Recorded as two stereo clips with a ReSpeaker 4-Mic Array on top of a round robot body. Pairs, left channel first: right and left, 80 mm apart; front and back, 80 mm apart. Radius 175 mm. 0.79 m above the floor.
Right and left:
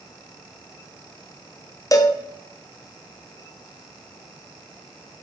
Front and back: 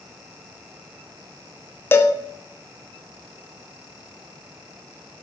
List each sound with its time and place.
1.9 s a cowbell: 55° right, 1.0 m